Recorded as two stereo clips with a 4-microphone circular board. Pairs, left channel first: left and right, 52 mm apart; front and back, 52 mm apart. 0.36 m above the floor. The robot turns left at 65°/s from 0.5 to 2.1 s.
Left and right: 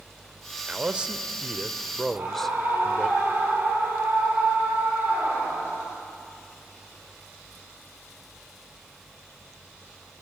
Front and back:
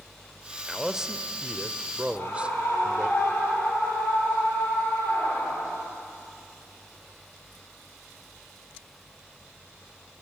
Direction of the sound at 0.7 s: 100° right.